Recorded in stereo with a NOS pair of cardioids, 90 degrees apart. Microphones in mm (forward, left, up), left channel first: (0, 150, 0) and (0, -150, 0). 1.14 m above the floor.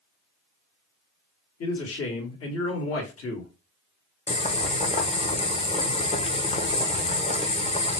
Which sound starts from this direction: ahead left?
A man speaking, at 1.6 s.